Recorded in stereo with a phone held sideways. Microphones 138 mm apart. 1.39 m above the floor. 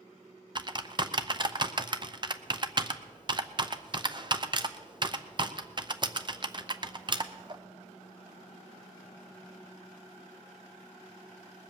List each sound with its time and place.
0.6 s typing on a keyboard: 35° right (ahead or behind), 0.6 m